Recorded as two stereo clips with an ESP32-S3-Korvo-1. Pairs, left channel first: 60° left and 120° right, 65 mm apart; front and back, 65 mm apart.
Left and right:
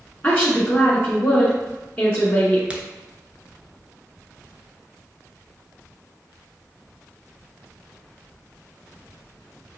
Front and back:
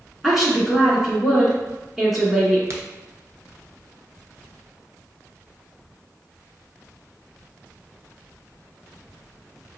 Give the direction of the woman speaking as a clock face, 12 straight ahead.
9 o'clock.